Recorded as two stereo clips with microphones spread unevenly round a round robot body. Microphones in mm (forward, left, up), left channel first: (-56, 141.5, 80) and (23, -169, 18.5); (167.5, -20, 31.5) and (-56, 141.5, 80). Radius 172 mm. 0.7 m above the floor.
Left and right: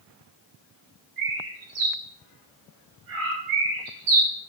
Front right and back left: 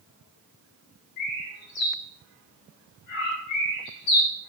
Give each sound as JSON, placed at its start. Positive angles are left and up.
{"t": 1.2, "sound": "a bird", "azimuth_deg": -55, "distance_m": 5.0}